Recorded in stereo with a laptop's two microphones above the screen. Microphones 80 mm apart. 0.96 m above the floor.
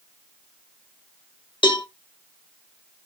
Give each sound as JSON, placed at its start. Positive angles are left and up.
{"t": 1.6, "sound": "a cowbell", "side_deg": 70, "distance_m": 0.9}